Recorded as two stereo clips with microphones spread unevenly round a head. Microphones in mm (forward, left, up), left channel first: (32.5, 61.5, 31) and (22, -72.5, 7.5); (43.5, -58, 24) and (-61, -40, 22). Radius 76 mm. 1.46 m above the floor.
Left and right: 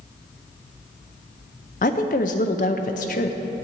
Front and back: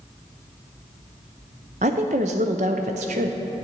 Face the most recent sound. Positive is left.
turn(degrees=125)